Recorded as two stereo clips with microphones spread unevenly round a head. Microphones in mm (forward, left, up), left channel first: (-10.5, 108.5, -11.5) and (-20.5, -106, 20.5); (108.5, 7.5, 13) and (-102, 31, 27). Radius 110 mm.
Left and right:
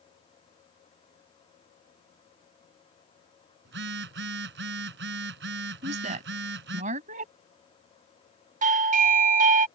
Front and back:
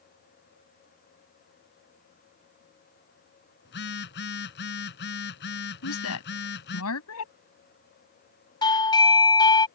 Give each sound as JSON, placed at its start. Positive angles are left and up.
{"t": 3.6, "sound": "a phone buzzing", "azimuth_deg": -50}
{"t": 5.8, "sound": "a woman speaking", "azimuth_deg": -35}
{"t": 8.6, "sound": "a doorbell", "azimuth_deg": -55}